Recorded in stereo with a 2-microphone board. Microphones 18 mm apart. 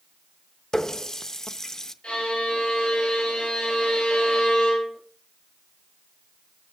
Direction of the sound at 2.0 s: 80° left.